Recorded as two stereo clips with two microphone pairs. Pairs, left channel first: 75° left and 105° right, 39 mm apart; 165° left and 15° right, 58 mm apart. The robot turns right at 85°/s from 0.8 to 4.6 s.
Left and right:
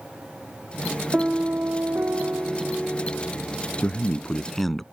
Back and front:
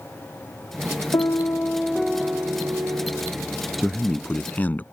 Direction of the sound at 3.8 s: 75° left.